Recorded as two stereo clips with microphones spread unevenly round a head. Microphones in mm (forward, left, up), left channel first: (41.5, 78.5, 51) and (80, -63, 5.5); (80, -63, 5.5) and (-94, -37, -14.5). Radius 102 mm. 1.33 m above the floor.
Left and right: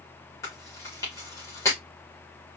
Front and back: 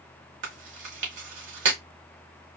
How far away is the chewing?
About 2 m.